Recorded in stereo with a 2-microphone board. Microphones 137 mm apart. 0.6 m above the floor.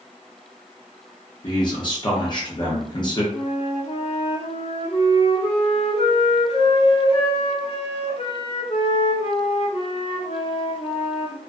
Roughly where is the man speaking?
Left.